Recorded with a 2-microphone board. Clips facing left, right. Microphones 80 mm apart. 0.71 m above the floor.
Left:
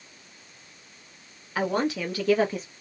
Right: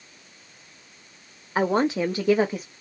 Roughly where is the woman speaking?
Right.